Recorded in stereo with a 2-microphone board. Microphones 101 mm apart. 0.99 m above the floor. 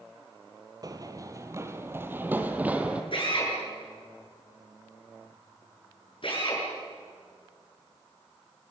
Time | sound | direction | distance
0.8 | running footsteps | 40° right (ahead or behind) | 1.7 m
3.1 | a drill | 60° left (ahead or behind) | 7 m